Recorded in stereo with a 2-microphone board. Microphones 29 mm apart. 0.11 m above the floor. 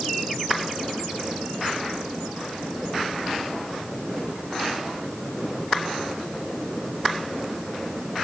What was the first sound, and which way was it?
Only background noise.